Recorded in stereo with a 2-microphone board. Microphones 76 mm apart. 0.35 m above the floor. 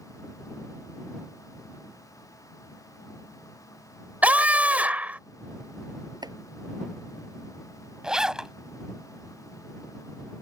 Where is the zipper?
10° right (ahead or behind).